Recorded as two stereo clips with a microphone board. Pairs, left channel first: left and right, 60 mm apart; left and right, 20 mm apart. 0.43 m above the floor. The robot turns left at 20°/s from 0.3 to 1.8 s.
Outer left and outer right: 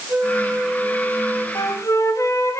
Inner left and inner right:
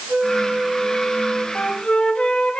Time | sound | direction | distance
0.1 | a flute | 20° right (ahead or behind) | 8 m
1.6 | a flute | 65° left (ahead or behind) | 1.6 m